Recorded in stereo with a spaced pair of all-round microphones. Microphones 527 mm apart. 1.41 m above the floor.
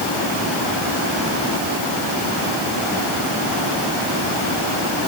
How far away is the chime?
I don't hear a chime.